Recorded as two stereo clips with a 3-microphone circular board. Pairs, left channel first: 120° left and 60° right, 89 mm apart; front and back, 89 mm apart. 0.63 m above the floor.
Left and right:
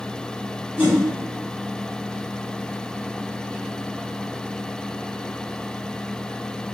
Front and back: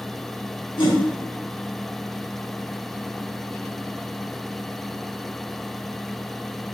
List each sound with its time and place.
0.8 s a whoosh: straight ahead, 1.4 m